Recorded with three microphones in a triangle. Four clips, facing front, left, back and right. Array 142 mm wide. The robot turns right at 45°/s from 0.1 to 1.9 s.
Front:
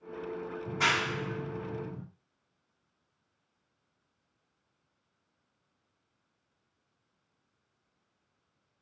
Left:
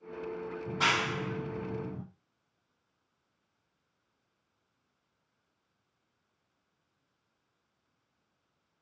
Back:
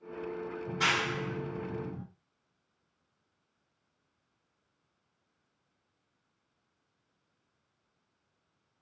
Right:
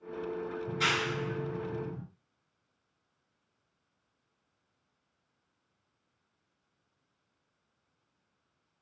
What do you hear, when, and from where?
0.7 s a clap: 45° left, 1.5 m; by 2.0 s 105° left, 1.5 m